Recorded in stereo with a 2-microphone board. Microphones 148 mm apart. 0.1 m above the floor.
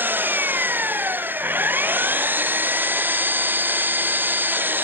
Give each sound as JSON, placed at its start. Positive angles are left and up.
{"t": 0.0, "sound": "an engine running", "side_deg": -15}